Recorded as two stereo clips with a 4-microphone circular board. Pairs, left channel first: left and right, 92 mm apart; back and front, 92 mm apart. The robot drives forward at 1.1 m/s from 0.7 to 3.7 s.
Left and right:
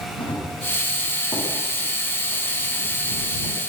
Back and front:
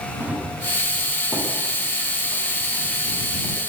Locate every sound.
0.2 s running footsteps: 70° left, 9.5 m; by 3.6 s 60° left, 9 m